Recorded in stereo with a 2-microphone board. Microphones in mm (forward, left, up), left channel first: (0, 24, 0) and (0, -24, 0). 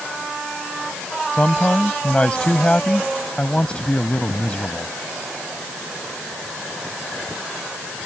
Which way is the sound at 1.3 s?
25° left (ahead or behind).